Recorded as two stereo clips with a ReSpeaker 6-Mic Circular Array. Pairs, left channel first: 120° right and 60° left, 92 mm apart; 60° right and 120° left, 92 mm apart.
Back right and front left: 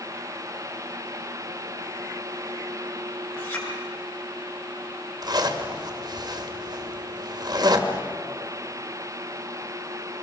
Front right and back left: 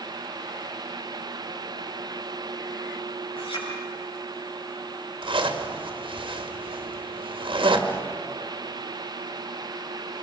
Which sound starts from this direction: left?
A zipper, at 5.2 s.